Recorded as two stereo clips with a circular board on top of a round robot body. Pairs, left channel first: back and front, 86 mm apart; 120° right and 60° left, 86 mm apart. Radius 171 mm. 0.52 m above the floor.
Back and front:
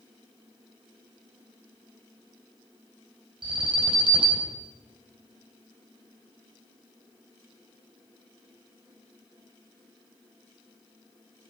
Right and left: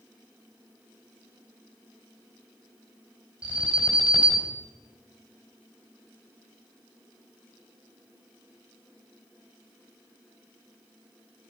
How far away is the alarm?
About 4.5 m.